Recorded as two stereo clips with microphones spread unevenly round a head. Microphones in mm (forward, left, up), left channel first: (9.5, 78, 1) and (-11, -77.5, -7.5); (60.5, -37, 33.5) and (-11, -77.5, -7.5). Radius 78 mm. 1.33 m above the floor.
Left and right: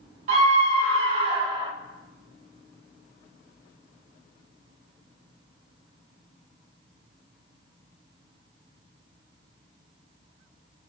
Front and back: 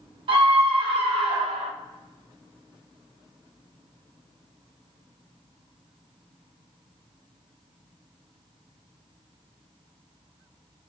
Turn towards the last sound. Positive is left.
turn(degrees=-165)